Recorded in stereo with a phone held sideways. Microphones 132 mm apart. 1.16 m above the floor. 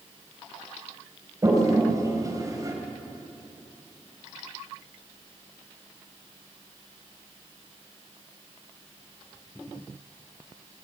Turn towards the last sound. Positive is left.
turn(degrees=-25)  # may be behind; listen again after turning